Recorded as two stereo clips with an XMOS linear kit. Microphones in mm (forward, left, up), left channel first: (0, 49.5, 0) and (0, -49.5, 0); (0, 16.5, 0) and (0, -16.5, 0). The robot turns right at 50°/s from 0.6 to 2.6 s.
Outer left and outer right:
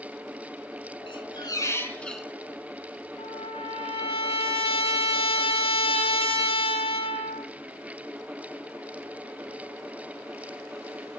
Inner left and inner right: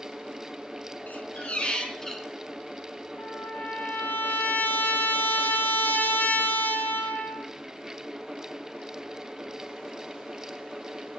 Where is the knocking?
I don't hear knocking.